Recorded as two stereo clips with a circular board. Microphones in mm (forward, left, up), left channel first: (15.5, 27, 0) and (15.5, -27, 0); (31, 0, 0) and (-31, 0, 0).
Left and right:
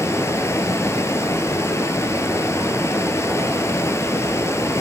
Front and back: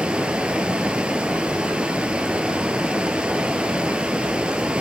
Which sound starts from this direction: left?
Running water, at 0.0 s.